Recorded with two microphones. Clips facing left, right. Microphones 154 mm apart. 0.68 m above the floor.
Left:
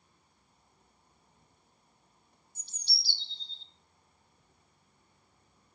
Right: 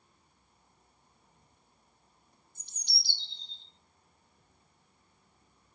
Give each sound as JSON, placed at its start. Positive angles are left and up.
{"t": 2.5, "sound": "a bird", "side_deg": -15, "distance_m": 1.9}